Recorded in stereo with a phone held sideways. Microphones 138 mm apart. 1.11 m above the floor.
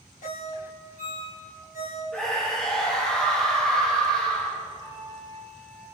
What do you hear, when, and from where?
0.2 s a ringtone: 85° left, 2.5 m
2.1 s a scream: 5° left (ahead or behind), 1.1 m
4.8 s a flute: 25° left (ahead or behind), 2 m